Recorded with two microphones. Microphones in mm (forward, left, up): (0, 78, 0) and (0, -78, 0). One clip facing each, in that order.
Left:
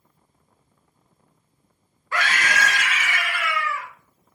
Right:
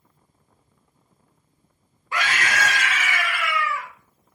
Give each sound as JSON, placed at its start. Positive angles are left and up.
{"t": 2.1, "sound": "a scream", "side_deg": -20, "distance_m": 1.3}